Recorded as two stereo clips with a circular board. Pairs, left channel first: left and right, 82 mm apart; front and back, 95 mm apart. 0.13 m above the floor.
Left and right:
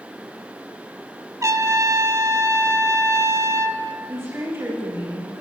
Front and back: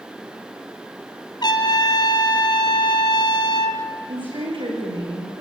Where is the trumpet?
40° right, 1.7 m.